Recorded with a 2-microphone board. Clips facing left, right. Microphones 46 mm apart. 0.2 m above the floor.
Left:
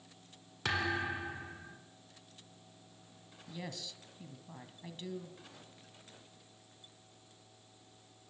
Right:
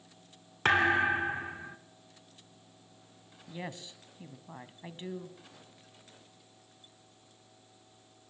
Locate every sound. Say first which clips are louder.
0.7 s a thud: right 9 dB; 40° right (ahead or behind), 2 m
3.5 s a woman speaking: right 3 dB; 30° right (ahead or behind), 1.6 m